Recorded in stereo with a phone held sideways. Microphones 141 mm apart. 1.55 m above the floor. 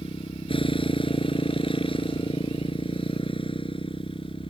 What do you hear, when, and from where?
0.0 s a motorcycle: 40° left (ahead or behind)